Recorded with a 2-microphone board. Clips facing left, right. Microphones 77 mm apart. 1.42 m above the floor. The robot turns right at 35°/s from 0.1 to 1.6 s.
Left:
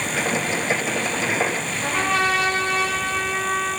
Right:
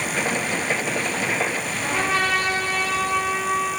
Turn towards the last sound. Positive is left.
turn(degrees=-5)  # may be behind; listen again after turning